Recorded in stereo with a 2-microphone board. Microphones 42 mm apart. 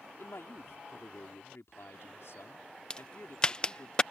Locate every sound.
0.2 s a man speaking: 75° left (ahead or behind)
2.9 s a crack: 20° left (ahead or behind)